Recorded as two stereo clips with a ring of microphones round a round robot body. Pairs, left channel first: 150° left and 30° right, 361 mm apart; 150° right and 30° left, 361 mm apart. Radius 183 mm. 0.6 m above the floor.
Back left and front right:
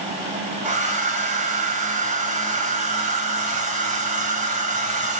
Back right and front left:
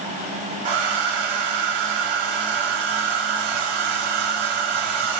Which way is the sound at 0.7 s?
40° left.